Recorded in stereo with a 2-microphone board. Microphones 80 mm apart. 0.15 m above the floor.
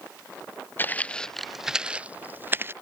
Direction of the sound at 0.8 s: 25° left (ahead or behind).